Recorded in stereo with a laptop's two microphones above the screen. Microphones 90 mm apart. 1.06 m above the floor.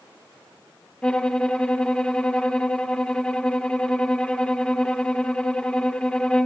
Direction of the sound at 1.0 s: 10° left (ahead or behind).